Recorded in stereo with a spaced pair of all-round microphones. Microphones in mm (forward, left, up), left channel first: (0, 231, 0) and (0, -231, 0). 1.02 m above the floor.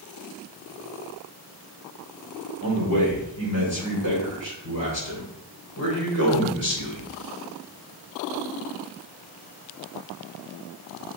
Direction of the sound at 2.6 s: 30° left (ahead or behind).